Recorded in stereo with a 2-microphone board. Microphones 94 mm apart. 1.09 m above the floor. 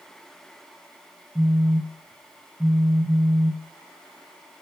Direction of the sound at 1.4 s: 15° right (ahead or behind).